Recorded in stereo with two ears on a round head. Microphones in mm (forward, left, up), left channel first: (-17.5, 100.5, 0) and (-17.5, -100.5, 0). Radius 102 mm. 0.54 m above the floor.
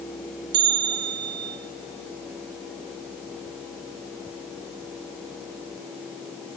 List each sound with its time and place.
0.5 s a bell: 50° right (ahead or behind), 1.8 m